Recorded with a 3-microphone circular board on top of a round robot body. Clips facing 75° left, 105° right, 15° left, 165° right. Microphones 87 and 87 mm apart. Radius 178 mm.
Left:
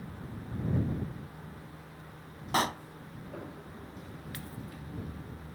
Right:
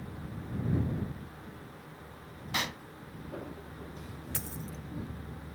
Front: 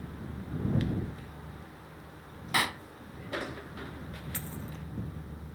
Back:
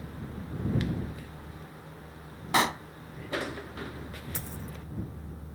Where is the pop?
130° left.